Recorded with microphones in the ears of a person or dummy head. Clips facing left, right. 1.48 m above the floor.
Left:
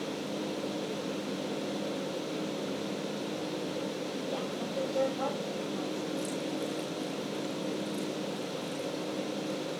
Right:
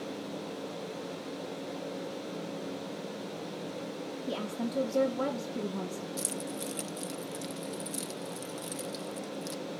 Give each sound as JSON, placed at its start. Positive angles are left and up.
{"t": 4.3, "sound": "a woman speaking", "side_deg": -40, "distance_m": 2.0}
{"t": 6.2, "sound": "keys jangling", "side_deg": -50, "distance_m": 0.8}